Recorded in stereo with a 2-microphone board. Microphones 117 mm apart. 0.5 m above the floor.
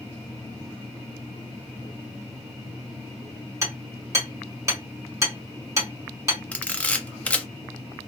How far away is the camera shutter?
About 0.5 m.